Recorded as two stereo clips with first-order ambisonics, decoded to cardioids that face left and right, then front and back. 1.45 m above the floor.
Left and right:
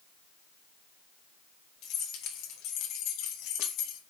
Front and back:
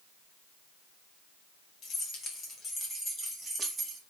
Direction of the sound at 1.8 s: 55° left.